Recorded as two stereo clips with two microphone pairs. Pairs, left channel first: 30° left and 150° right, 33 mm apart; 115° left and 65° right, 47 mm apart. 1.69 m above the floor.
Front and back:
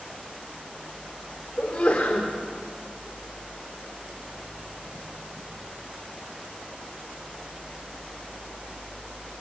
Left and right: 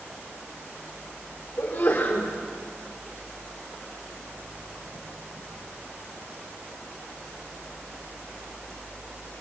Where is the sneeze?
70° left, 4.5 m.